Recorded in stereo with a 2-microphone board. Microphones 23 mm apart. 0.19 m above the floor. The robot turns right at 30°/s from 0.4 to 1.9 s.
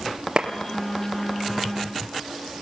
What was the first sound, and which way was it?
A clap, 55° right (ahead or behind).